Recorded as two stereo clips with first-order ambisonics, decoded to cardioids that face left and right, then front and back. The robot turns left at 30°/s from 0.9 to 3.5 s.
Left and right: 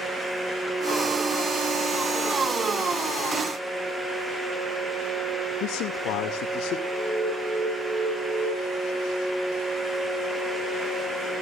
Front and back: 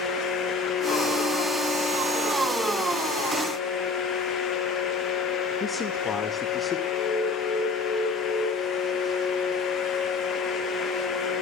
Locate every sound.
5.6 s a man speaking: 65° left, 2 m
6.9 s an alarm: 10° right, 7 m